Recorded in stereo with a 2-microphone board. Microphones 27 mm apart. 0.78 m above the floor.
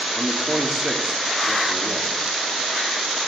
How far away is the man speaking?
About 2 m.